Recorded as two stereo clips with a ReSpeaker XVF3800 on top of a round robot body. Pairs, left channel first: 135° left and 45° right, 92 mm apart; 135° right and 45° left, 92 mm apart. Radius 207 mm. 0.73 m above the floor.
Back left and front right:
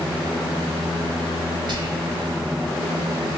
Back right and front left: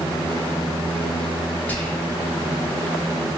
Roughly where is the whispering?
Ahead right.